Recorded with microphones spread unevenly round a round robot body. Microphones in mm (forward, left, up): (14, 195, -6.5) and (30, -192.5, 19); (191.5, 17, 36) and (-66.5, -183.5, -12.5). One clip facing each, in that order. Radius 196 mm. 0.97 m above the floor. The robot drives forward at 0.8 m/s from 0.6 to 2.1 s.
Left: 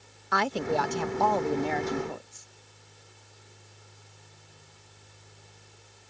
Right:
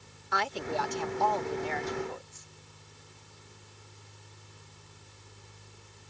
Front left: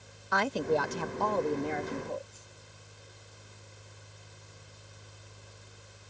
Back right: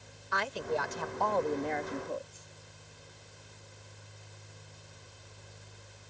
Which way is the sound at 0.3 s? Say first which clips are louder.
Left 6 dB, front left 6 dB; 85° left.